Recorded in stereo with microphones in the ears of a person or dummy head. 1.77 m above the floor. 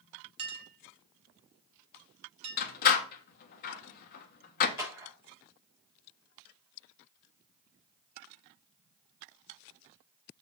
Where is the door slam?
50° left (ahead or behind), 1.3 m.